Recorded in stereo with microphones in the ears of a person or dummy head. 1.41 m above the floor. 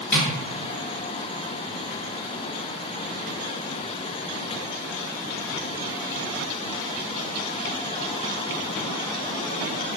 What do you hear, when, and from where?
0.1 s tapping: 10° left (ahead or behind), 1.8 m